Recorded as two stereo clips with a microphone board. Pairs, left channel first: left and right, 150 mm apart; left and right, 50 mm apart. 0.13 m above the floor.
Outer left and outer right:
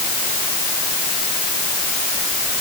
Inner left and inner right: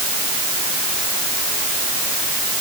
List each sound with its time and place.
Only background noise.